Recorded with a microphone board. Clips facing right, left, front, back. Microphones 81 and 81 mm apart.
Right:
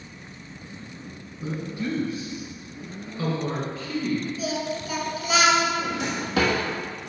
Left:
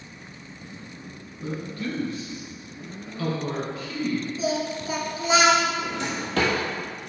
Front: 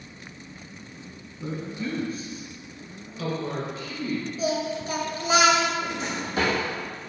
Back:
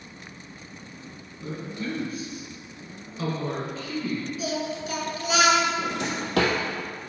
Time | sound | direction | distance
1.4 | a woman speaking | 20° right | 1.4 m
4.4 | singing | 40° left | 1.1 m
5.8 | a drawer | 175° right | 1.2 m